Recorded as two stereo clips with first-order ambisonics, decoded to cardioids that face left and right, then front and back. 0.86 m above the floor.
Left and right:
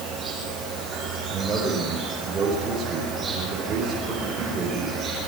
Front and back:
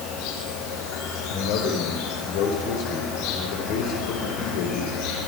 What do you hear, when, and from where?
0.0 s an insect: 15° right, 7.5 m
1.3 s a man speaking: 15° right, 4 m